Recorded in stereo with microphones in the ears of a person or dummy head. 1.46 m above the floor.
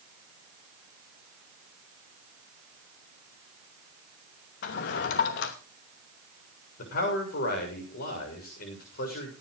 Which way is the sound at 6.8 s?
55° left (ahead or behind).